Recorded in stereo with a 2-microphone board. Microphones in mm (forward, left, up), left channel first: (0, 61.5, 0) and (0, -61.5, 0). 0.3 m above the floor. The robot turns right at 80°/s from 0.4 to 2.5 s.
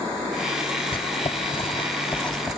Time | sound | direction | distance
0.9 | writing | 45° left (ahead or behind) | 0.9 m